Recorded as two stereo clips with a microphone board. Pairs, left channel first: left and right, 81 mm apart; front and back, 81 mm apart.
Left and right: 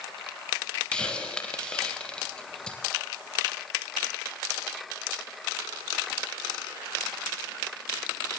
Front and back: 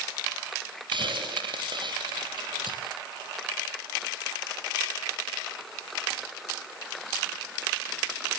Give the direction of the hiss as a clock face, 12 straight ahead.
6 o'clock.